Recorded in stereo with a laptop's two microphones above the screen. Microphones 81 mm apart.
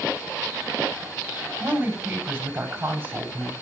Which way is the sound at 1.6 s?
30° right (ahead or behind).